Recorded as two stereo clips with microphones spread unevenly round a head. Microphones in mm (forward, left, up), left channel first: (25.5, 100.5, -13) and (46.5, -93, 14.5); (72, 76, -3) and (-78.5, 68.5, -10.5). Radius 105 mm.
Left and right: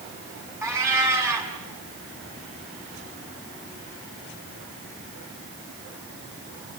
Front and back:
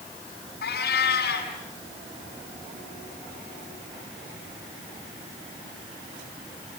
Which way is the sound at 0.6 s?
10° right.